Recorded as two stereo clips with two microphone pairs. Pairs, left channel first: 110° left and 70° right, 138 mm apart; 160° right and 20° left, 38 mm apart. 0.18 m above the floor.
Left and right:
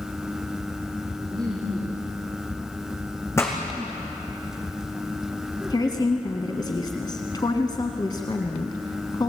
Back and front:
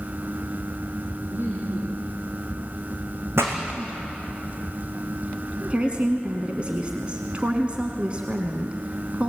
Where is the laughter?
5° right, 5 m.